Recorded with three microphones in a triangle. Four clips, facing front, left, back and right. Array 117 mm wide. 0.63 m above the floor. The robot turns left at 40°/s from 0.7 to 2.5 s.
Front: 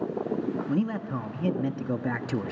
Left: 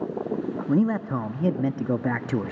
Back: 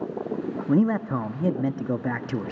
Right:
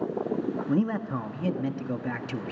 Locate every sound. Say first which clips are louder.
0.7 s a man speaking: left 6 dB, back 6 dB; 165° left, 0.7 m; by 2.5 s 95° left, 0.7 m